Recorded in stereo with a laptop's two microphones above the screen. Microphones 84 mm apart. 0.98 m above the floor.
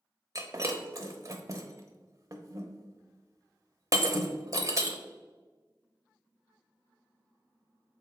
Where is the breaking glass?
40° right (ahead or behind), 0.9 m.